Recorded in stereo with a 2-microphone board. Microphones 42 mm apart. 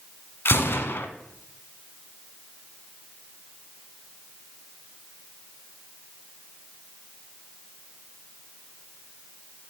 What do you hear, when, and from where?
0.5 s a gunshot: 70° left (ahead or behind), 1.1 m